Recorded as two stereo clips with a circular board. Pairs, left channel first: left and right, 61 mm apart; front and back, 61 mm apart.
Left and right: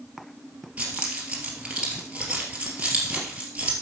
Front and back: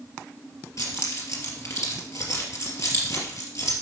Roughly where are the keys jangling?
Ahead right.